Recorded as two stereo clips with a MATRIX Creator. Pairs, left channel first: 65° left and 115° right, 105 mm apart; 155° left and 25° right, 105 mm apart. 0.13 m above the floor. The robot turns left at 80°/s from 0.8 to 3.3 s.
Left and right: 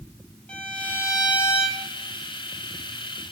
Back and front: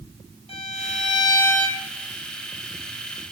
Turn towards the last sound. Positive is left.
turn(degrees=-55)